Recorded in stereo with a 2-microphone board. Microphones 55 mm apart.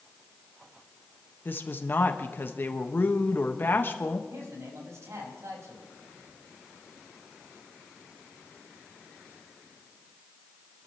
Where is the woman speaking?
40° left (ahead or behind), 1.2 m.